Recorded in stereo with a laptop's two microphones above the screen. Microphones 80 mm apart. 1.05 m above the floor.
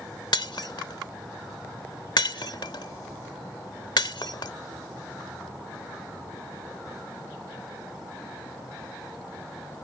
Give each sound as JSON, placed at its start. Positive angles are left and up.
{"t": 0.3, "sound": "breaking glass", "side_deg": 70}